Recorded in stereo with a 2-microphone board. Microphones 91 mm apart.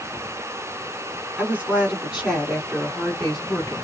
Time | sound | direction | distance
1.4 | a woman speaking | 20° right (ahead or behind) | 1.6 m